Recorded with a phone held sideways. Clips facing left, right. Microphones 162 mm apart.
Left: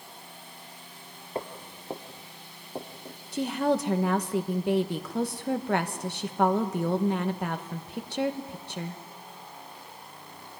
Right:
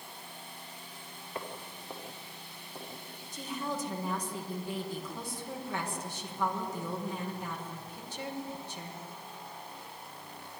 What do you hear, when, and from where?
1.4 s footsteps: 30° left (ahead or behind), 1.9 m; by 3.2 s 40° left (ahead or behind), 4 m
3.3 s a woman speaking: 70° left (ahead or behind), 1.5 m